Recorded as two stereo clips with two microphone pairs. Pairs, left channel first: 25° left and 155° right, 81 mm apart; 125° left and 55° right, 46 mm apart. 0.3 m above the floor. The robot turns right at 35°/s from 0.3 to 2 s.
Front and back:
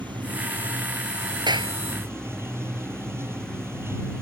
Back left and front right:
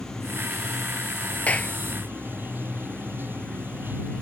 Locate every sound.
0.0 s running water: 155° right; by 4.2 s 95° right
1.5 s a clap: 175° right; by 1.7 s 165° right